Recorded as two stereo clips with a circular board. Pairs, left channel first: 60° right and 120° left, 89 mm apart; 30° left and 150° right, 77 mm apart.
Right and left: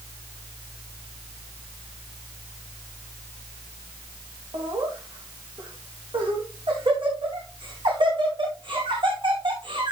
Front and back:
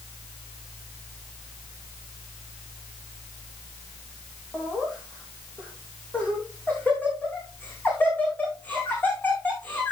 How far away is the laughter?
About 6 m.